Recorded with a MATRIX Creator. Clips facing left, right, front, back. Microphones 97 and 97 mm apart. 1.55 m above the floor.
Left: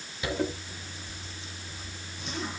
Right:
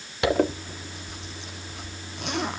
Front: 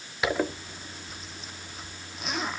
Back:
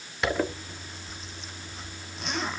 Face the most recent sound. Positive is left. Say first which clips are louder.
# right 8 dB, even
turn(degrees=-85)